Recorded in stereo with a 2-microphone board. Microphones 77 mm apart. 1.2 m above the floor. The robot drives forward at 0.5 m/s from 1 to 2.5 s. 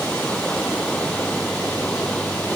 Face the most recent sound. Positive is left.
turn(degrees=15)  # may be behind; listen again after turning